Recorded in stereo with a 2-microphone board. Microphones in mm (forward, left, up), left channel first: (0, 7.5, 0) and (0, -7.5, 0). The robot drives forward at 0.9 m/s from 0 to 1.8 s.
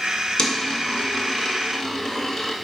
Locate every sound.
0.4 s a dropped coin: 60° left (ahead or behind), 0.9 m; by 2.5 s 40° left (ahead or behind), 1.2 m